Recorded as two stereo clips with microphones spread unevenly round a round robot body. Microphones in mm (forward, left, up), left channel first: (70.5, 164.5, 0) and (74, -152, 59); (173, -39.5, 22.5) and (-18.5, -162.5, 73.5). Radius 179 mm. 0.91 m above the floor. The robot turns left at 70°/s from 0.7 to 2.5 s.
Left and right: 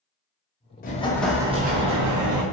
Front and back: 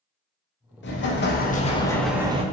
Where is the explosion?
40° left, 0.6 m; by 2.4 s 75° right, 0.6 m.